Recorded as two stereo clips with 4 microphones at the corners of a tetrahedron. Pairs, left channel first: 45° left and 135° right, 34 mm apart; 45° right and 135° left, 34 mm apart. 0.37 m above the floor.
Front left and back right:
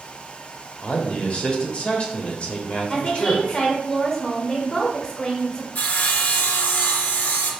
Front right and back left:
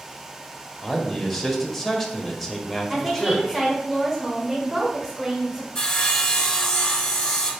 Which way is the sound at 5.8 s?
25° left.